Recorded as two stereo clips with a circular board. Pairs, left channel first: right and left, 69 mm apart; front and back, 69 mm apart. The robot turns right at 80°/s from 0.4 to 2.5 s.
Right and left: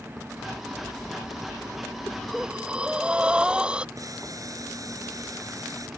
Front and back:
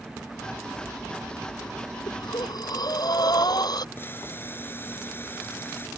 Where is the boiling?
60° left.